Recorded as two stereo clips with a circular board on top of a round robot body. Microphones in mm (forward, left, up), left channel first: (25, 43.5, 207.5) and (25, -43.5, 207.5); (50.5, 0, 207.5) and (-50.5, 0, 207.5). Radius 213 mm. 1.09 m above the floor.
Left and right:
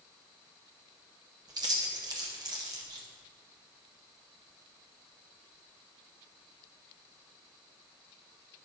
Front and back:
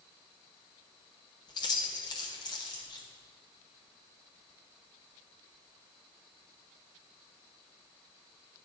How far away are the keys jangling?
About 0.8 m.